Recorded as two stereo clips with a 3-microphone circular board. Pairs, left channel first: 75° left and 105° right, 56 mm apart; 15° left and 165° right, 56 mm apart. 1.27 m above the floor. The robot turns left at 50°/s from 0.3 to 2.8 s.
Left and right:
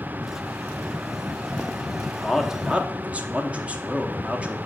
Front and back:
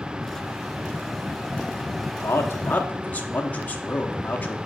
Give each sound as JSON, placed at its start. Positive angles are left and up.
{"t": 2.2, "sound": "a man speaking", "azimuth_deg": -10, "distance_m": 0.8}